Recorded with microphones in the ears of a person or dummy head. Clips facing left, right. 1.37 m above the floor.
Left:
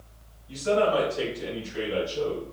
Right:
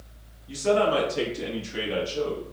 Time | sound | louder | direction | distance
0.5 | a man speaking | right 1 dB | 70° right (ahead or behind) | 1.4 m